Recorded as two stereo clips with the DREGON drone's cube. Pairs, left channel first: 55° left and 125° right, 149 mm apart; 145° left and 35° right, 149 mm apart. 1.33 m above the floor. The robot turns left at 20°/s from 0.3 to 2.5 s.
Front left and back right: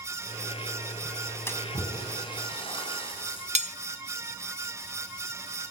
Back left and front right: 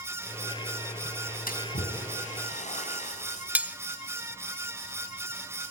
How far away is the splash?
About 6 m.